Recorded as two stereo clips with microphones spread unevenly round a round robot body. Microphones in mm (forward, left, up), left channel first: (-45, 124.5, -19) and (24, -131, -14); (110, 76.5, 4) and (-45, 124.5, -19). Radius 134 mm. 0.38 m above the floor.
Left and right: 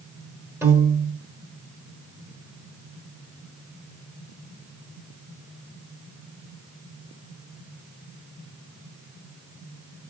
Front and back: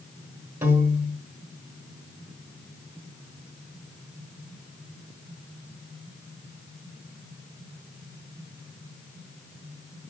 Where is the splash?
No splash in this recording.